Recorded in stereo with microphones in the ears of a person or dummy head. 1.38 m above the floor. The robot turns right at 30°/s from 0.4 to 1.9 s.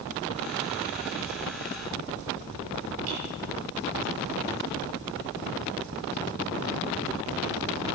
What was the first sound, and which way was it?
Breaking glass, 80° right.